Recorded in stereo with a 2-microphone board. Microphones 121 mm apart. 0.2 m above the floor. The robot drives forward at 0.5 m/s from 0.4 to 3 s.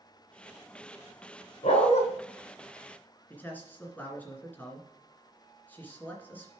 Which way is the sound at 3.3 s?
15° left (ahead or behind).